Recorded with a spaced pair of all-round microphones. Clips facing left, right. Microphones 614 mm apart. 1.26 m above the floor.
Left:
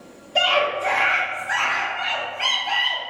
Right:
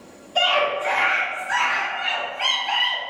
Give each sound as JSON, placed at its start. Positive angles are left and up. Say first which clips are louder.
{"t": 0.3, "sound": "a scream", "louder": "even", "side_deg": 50, "distance_m": 0.9}